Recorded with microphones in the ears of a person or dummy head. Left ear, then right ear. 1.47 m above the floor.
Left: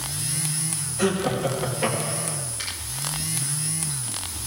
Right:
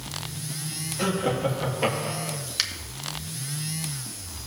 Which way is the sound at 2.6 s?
65° right (ahead or behind).